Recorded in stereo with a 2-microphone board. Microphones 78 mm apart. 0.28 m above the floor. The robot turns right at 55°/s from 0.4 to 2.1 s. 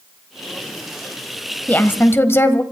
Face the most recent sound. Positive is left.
turn(degrees=30)  # may be behind; listen again after turning